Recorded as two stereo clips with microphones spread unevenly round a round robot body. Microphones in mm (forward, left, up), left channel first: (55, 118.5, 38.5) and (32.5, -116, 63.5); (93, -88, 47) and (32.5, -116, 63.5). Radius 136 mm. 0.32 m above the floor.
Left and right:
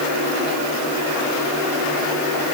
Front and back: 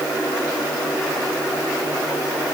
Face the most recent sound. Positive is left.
No sound to turn to.